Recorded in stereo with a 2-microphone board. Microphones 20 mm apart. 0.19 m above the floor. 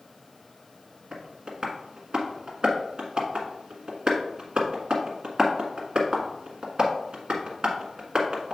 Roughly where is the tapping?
Right.